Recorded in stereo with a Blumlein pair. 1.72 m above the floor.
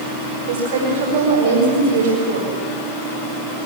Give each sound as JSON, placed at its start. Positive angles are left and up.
{"t": 0.5, "sound": "a woman speaking", "azimuth_deg": -60, "distance_m": 7.0}